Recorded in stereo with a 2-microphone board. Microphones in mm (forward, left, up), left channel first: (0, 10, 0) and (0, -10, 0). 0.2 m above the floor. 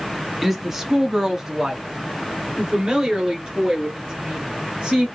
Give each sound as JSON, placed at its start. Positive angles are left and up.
{"t": 0.4, "sound": "a woman speaking", "side_deg": -5, "distance_m": 1.1}